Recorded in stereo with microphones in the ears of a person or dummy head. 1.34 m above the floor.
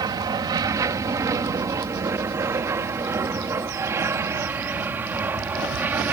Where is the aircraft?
20° right (ahead or behind); by 6.1 s 10° right (ahead or behind).